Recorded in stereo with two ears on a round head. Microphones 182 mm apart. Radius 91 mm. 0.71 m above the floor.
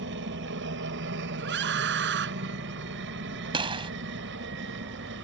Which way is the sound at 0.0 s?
60° right (ahead or behind).